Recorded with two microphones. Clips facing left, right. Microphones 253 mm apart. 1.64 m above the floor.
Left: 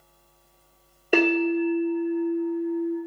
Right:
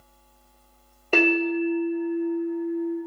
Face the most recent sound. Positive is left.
turn(degrees=10)  # may be behind; listen again after turning